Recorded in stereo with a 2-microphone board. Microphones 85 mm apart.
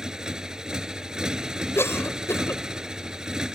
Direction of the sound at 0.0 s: 10° right (ahead or behind).